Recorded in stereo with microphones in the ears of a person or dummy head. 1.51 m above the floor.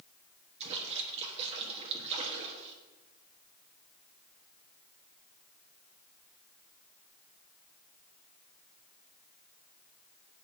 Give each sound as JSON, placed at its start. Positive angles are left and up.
{"t": 0.6, "sound": "a splash", "side_deg": -35, "distance_m": 1.5}